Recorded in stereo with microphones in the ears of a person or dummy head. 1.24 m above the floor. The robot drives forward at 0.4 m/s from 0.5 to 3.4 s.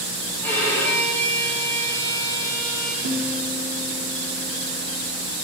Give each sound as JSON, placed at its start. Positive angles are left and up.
{"t": 0.4, "sound": "a violin", "side_deg": 10, "distance_m": 6.5}
{"t": 3.0, "sound": "a guitar", "side_deg": -70, "distance_m": 2.5}